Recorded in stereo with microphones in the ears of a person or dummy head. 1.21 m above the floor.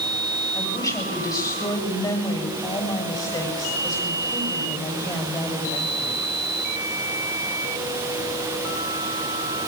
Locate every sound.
0.5 s a woman speaking: 20° left (ahead or behind), 7 m